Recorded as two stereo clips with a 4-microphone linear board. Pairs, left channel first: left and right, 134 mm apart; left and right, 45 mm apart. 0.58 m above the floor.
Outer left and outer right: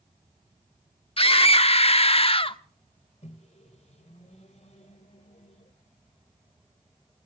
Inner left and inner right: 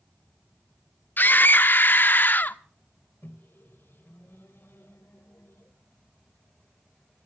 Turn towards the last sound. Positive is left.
turn(degrees=55)  # may be behind; listen again after turning